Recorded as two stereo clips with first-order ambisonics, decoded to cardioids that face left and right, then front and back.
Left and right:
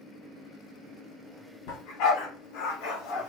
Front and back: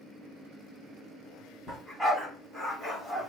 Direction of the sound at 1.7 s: 90° left.